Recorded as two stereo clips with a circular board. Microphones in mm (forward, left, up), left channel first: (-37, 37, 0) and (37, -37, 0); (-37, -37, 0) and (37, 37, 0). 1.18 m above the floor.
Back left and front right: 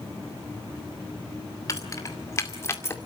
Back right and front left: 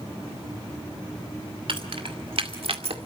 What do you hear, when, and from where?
1.7 s keys jangling: 80° left, 2.5 m; by 3.0 s 70° left, 1.9 m